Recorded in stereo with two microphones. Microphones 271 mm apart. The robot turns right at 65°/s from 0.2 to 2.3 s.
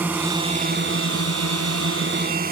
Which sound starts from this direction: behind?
A drone, at 0.0 s.